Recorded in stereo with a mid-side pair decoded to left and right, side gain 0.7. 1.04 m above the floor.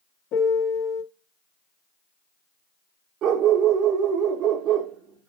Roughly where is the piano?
Ahead left.